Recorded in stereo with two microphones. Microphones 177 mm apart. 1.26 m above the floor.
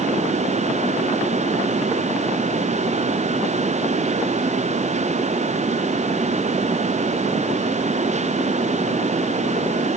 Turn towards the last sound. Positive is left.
No sound to turn to.